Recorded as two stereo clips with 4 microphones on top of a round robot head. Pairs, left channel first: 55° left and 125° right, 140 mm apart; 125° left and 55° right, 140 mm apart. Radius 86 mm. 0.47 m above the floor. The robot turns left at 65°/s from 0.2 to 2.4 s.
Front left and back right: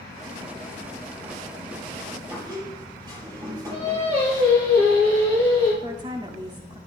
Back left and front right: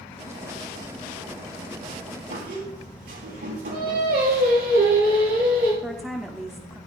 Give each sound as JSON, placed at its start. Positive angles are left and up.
{"t": 2.3, "sound": "a squeak", "azimuth_deg": -55, "distance_m": 6.0}
{"t": 3.7, "sound": "singing", "azimuth_deg": -75, "distance_m": 4.5}
{"t": 5.8, "sound": "a woman speaking", "azimuth_deg": -145, "distance_m": 1.0}